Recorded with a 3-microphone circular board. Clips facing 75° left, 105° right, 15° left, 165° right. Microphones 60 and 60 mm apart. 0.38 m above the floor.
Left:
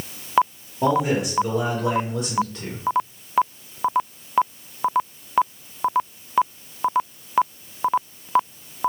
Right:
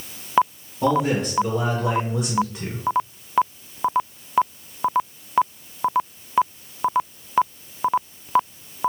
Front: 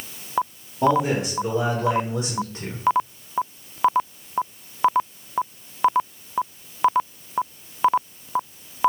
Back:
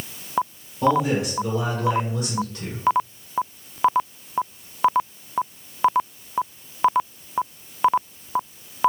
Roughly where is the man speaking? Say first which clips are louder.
Even, even; ahead left.